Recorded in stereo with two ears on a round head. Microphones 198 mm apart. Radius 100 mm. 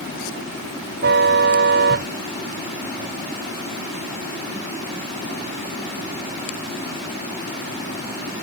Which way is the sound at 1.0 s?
45° right (ahead or behind).